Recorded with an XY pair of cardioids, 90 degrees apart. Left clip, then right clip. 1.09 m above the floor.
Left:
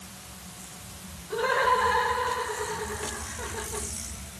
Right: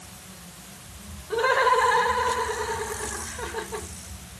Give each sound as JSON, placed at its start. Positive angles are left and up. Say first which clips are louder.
{"t": 1.3, "sound": "laughter", "louder": "right 3 dB", "azimuth_deg": -50, "distance_m": 3.0}